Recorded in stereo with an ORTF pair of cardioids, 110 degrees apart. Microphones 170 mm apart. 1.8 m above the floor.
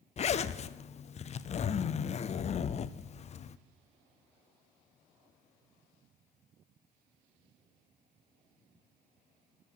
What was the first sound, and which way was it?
A zipper, 40° left.